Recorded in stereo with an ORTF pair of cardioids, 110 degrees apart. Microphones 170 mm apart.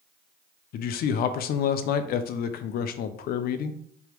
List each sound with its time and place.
0.7 s a man speaking: 60° left, 0.5 m